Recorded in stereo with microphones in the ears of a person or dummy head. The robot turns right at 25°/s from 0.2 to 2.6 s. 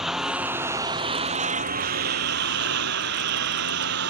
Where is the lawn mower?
Straight behind; by 4.1 s 120° right.